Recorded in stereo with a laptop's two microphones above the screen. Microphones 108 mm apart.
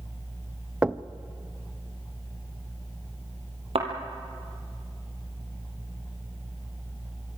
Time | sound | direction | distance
0.8 | knocking | 10° right (ahead or behind) | 0.6 m
3.8 | a thud | 60° right (ahead or behind) | 3 m